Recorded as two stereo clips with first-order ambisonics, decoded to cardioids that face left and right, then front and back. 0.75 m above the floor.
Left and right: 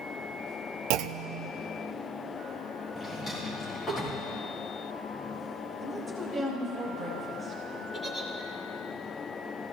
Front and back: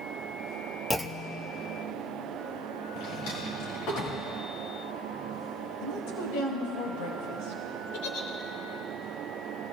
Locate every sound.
0.9 s a clunk: 85° right, 0.5 m
3.0 s a drawer: 10° left, 6 m
5.8 s a woman speaking: 15° right, 4 m
7.9 s a giggle: straight ahead, 2 m